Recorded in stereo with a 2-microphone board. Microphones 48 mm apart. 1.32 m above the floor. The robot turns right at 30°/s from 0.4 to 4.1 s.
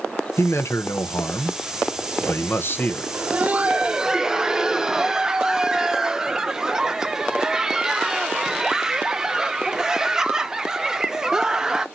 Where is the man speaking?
60° left, 0.7 m; by 3.0 s 140° left, 0.7 m.